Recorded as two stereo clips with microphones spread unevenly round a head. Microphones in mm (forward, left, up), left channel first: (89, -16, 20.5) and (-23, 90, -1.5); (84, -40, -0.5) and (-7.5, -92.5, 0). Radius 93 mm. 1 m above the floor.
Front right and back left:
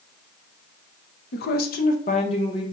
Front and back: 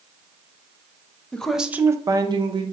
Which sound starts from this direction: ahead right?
A woman speaking, at 1.3 s.